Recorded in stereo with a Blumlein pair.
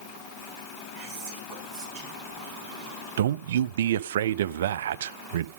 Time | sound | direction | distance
0.9 | whispering | 30° right | 9.5 m
3.2 | a man speaking | 60° right | 0.6 m